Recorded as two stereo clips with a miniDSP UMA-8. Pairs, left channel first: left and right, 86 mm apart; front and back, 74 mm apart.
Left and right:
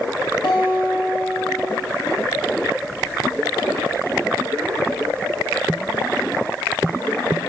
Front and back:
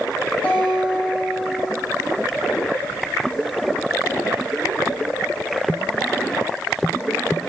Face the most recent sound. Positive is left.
turn(degrees=70)